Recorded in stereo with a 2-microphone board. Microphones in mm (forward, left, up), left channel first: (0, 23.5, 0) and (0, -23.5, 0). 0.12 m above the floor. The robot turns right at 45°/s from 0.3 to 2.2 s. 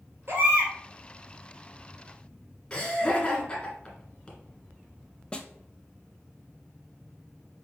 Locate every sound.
0.3 s a baby crying: 50° right (ahead or behind), 1.5 m; by 0.7 s 60° right (ahead or behind), 1.5 m
2.7 s laughter: 20° left (ahead or behind), 1.5 m
5.3 s a snare drum: 20° left (ahead or behind), 0.5 m